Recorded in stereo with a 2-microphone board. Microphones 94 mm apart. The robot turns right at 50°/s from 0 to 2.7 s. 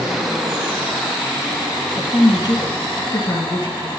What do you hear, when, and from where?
2.0 s a woman speaking: 55° left, 2.5 m; by 3.9 s 95° left, 2.5 m